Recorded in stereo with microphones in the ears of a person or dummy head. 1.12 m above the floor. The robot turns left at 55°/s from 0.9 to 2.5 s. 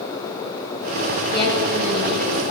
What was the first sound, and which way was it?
A woman speaking, 155° left.